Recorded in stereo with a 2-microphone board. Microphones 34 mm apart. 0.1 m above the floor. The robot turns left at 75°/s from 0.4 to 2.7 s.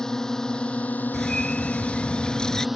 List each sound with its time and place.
0.0 s a drone: 20° left (ahead or behind); by 2.8 s 5° right (ahead or behind)
1.1 s a bird: 145° left; by 2.7 s 30° left